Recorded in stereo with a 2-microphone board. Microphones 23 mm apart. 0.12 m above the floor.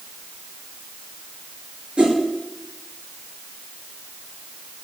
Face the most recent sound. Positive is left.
turn(degrees=-45)  # may be behind; listen again after turning